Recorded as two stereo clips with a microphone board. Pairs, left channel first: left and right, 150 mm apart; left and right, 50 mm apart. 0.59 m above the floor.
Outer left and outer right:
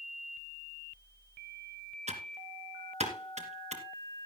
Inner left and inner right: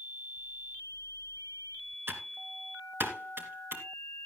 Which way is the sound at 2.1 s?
50° right (ahead or behind).